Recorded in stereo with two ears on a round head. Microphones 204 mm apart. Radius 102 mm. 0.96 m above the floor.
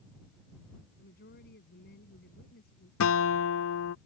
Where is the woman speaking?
45° left (ahead or behind).